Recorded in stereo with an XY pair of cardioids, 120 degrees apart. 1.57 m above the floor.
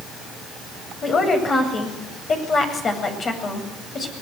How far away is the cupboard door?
I don't hear a cupboard door.